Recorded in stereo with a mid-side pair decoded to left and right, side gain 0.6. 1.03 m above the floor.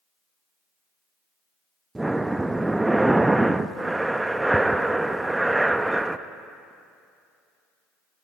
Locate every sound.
1.9 s breathing: 10° right, 0.5 m